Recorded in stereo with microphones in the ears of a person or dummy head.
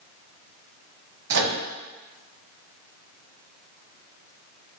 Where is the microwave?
65° right (ahead or behind), 0.6 m.